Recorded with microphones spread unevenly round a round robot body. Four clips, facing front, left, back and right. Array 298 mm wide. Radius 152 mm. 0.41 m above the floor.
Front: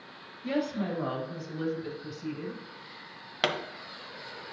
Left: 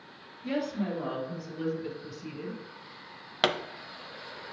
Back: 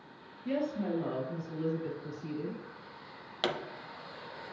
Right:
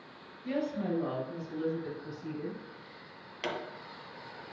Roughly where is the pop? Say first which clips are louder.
Left 8 dB, front 3 dB; ahead left.